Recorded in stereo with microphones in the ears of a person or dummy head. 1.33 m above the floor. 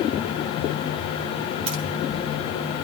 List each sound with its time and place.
1.7 s keys jangling: 40° right (ahead or behind), 2 m